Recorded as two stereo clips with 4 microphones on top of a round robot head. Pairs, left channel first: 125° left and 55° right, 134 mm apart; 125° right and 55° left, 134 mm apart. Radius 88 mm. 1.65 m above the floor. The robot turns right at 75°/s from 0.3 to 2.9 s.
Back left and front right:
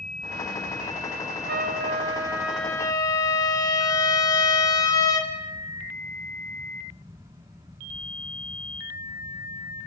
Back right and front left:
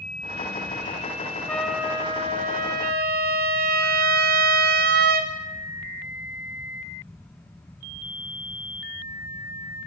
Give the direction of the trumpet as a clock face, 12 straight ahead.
2 o'clock.